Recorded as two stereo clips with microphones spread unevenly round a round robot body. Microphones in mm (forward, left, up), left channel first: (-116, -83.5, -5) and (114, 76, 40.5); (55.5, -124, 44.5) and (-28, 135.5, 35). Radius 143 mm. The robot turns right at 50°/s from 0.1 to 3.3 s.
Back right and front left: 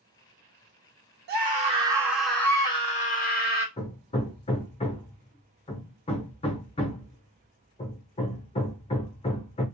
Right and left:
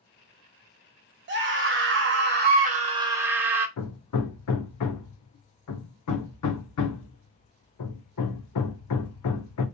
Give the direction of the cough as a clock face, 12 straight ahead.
No cough in this recording.